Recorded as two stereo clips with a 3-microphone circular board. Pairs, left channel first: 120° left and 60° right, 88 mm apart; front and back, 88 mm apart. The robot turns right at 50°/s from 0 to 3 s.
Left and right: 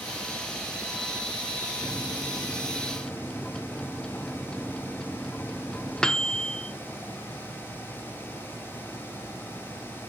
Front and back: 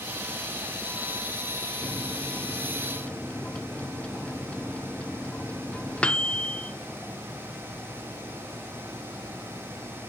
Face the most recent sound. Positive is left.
turn(degrees=55)